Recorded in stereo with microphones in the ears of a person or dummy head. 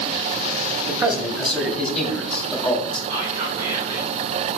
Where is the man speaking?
5° right (ahead or behind), 2.5 m; by 3.0 s 10° left (ahead or behind), 3.5 m.